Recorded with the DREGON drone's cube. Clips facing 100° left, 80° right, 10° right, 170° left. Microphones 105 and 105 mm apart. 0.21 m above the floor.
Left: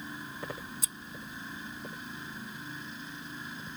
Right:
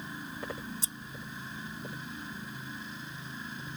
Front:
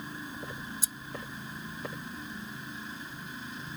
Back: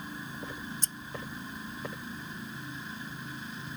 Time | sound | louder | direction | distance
0.8 | scissors | right 2 dB, even | 85° right | ?